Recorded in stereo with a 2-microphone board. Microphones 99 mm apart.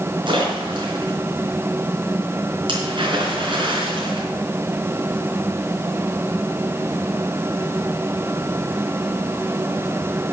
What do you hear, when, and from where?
0.3 s a splash: 55° right (ahead or behind), 4 m